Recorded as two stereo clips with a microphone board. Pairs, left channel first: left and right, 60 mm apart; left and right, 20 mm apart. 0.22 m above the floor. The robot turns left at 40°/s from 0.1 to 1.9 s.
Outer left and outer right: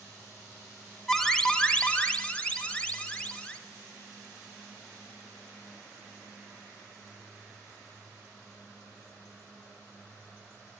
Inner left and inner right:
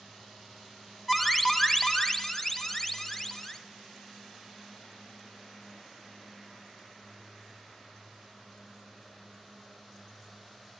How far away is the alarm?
About 0.7 m.